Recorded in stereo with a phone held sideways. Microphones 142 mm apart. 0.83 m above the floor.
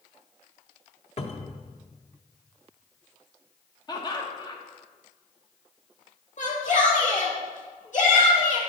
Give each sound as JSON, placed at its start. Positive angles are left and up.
{"t": 1.2, "sound": "a cupboard door", "side_deg": 50, "distance_m": 0.7}
{"t": 3.9, "sound": "laughter", "side_deg": 30, "distance_m": 0.9}
{"t": 6.4, "sound": "a shout", "side_deg": 60, "distance_m": 1.7}